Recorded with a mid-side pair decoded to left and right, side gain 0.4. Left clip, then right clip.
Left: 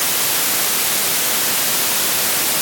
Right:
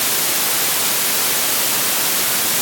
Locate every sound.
Only background noise.